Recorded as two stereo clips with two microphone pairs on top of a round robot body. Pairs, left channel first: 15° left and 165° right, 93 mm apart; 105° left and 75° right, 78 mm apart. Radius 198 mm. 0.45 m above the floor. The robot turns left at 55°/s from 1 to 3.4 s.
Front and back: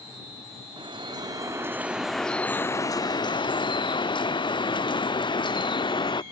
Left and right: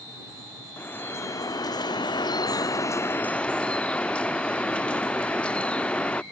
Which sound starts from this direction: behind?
Dripping, at 0.8 s.